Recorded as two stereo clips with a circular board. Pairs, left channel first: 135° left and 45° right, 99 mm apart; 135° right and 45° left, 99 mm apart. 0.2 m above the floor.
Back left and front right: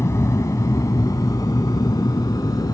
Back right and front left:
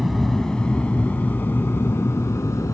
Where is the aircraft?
135° left; by 2.7 s 175° left.